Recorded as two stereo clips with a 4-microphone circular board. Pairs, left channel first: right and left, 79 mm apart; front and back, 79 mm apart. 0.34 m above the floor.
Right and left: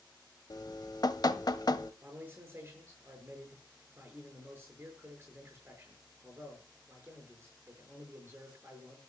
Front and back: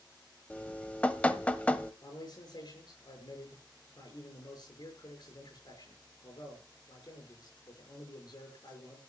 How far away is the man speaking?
About 6.5 m.